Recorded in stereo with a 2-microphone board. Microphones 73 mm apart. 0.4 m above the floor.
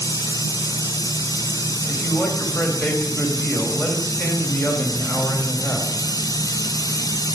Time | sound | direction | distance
0.0 | running water | 60° left (ahead or behind) | 2 m
1.9 | a man speaking | 25° left (ahead or behind) | 2.5 m